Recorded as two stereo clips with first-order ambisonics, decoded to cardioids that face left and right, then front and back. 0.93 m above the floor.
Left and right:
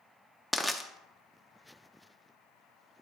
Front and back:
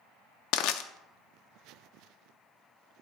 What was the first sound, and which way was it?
Crushing, straight ahead.